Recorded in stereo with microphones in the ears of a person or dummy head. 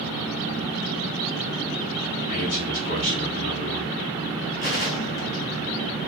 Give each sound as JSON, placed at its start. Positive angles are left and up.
{"t": 2.3, "sound": "a man speaking", "side_deg": 45, "distance_m": 0.8}
{"t": 4.6, "sound": "a gunshot", "side_deg": 50, "distance_m": 0.7}